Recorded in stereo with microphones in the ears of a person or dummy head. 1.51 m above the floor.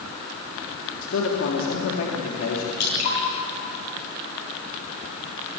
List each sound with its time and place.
1.0 s a man speaking: 85° left, 4 m
2.8 s dripping: 55° left (ahead or behind), 8.5 m